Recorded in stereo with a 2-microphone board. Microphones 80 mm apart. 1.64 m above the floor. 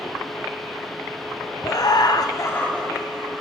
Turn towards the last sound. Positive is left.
turn(degrees=0)  # may be behind; listen again after turning